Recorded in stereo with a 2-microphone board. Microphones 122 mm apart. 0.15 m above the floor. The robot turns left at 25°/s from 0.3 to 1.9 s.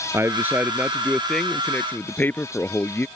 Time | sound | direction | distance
0.1 | a man speaking | 160° right | ?